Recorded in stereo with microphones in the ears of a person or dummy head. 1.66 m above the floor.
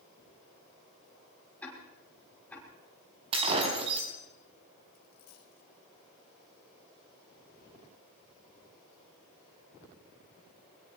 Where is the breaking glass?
35° right (ahead or behind), 4 m.